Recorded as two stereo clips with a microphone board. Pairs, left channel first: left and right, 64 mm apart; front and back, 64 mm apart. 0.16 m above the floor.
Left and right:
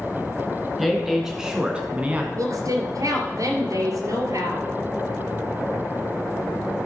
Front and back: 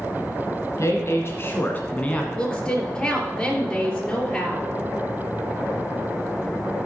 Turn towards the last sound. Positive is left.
turn(degrees=-75)